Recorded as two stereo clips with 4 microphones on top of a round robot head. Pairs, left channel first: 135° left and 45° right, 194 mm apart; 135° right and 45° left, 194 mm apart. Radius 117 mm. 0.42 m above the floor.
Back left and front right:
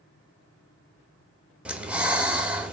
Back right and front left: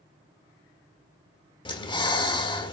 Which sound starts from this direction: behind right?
Breathing, at 1.6 s.